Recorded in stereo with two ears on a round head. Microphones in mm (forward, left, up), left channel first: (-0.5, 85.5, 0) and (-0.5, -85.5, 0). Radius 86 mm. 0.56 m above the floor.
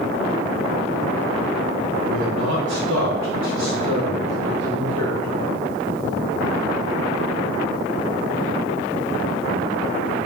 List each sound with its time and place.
2.1 s a man speaking: 60° right (ahead or behind), 3.5 m; by 5.4 s 65° right (ahead or behind), 3 m